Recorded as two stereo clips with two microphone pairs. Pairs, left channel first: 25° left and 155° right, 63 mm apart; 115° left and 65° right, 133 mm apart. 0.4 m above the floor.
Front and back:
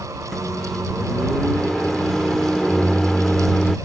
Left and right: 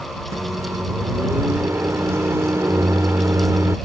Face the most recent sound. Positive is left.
turn(degrees=-55)